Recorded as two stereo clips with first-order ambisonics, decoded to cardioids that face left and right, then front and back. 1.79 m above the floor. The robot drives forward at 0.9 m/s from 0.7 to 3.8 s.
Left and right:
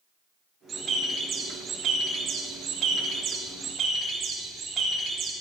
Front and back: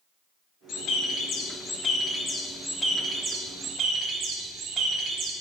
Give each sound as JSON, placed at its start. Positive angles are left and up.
{"t": 0.7, "sound": "a bird", "azimuth_deg": -30, "distance_m": 2.5}